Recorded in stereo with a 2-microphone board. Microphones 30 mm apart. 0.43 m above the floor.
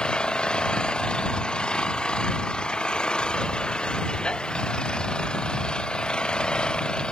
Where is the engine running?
30° left (ahead or behind).